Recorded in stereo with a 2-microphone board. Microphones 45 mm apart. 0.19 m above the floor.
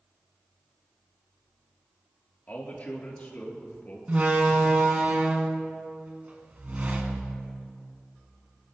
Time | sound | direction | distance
2.5 | a man speaking | 40° left (ahead or behind) | 3 m
4.1 | a door slam | 35° right (ahead or behind) | 1.3 m